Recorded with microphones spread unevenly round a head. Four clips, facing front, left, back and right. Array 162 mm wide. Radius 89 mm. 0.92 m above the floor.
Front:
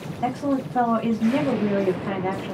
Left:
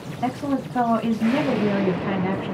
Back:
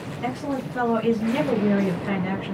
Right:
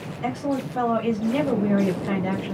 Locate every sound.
0.2 s a woman speaking: 55° left, 2 m